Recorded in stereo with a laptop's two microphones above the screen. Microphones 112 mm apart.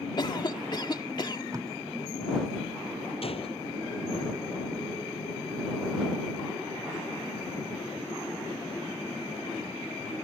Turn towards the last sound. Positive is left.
turn(degrees=60)  # may be behind; listen again after turning